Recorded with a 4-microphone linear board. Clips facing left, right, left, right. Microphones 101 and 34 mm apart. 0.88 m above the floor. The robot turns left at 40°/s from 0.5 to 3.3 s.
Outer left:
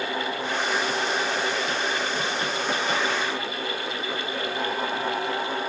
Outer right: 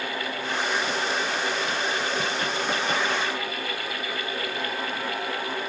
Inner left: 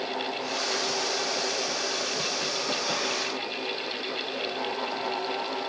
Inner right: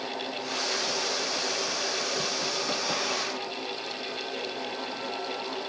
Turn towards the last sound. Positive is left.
No sound to turn to.